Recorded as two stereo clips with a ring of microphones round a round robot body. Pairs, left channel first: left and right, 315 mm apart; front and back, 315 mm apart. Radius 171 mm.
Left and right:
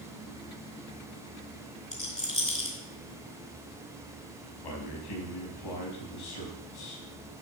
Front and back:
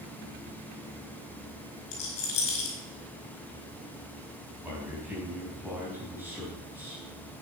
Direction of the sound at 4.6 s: 95° left.